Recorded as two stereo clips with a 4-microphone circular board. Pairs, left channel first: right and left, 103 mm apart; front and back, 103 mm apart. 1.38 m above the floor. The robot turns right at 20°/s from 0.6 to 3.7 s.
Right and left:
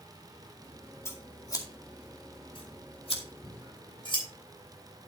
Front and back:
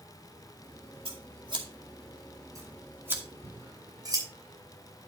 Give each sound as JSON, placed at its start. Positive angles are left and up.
{"t": 1.1, "sound": "scissors", "azimuth_deg": -155, "distance_m": 2.5}
{"t": 3.4, "sound": "scissors", "azimuth_deg": -135, "distance_m": 6.0}